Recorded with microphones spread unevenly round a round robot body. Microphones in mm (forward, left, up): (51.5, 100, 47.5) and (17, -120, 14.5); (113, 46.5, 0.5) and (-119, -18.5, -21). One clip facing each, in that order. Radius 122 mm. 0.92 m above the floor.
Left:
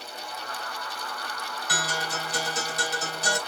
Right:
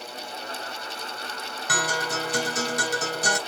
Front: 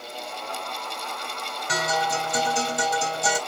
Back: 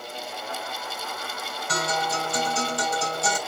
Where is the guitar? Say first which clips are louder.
Right 5 dB, front 1 dB; 60° right, 2.5 m.